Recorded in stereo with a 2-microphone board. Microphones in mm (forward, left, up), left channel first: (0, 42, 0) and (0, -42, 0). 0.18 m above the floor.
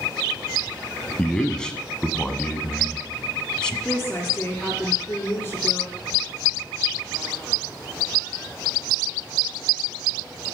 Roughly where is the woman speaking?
Left.